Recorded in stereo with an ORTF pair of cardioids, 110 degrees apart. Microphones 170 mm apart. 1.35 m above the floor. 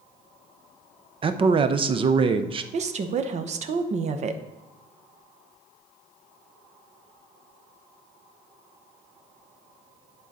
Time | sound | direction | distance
1.2 | a man speaking | 30° right | 0.7 m
2.7 | a woman speaking | 45° right | 0.9 m